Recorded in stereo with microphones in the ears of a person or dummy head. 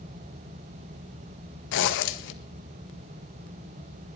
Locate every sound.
1.7 s a zipper: 70° left (ahead or behind), 1.8 m